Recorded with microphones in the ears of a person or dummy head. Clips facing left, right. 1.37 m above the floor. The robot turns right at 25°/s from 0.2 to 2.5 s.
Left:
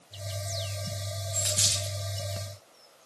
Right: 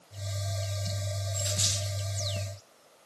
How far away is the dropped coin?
About 1.7 m.